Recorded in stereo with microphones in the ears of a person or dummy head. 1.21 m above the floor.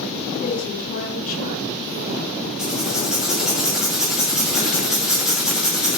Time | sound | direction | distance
0.4 | a woman speaking | 50° left (ahead or behind) | 2.5 m
2.6 | writing | 10° right (ahead or behind) | 2.5 m